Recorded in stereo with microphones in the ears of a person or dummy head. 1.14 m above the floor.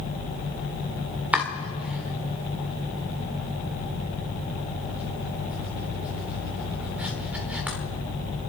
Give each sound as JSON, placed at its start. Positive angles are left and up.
{"t": 1.3, "sound": "chopping", "side_deg": -5, "distance_m": 1.2}